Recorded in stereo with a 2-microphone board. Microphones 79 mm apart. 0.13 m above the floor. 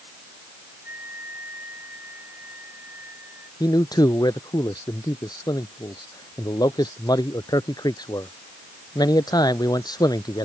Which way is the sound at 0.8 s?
25° right (ahead or behind).